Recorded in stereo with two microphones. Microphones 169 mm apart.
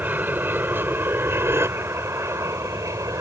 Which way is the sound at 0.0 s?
10° right (ahead or behind).